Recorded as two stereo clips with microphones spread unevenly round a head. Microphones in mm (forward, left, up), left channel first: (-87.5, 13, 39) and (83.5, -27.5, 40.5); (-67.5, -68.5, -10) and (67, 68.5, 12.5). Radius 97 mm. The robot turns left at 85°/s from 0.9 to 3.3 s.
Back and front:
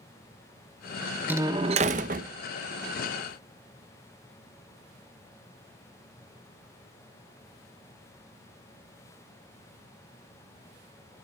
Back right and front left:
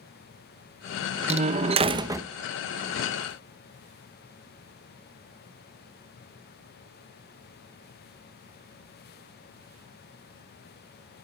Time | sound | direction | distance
1.3 | a door slam | 65° left | 0.9 m